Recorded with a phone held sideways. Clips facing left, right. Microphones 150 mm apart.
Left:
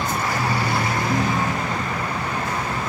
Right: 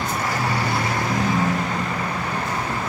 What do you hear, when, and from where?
1.1 s a ringtone: 30° right (ahead or behind), 8 m